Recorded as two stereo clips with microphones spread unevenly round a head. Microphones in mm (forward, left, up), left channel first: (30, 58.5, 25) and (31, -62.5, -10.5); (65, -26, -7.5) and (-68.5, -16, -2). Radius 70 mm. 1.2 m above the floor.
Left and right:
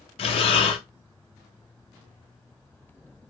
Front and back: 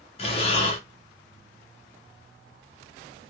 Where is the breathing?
40° left, 0.7 m.